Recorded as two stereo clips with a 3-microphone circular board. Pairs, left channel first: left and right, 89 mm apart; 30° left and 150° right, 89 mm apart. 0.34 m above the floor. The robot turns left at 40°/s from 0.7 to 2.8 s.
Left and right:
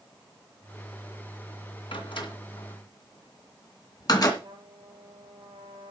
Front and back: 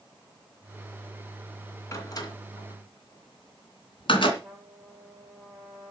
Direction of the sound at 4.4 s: 65° right.